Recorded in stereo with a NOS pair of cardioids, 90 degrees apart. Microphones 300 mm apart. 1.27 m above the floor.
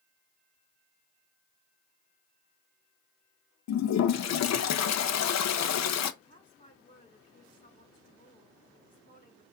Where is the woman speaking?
20° left, 4.5 m.